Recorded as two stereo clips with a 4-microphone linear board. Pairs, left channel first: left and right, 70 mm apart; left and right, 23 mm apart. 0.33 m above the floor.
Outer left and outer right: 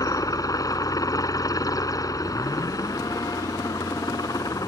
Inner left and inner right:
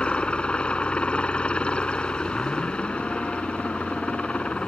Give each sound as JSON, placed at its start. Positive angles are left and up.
{"t": 0.0, "sound": "a helicopter", "side_deg": 55}